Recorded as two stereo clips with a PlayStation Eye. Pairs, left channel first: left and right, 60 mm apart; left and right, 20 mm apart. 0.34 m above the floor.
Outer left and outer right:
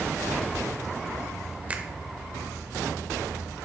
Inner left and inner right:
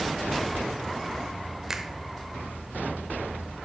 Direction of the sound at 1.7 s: 25° right (ahead or behind).